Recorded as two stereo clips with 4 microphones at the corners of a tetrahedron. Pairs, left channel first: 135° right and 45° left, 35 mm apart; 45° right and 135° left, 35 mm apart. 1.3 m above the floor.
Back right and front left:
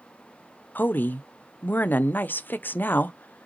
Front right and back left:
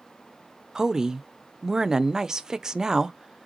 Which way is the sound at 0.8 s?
155° right.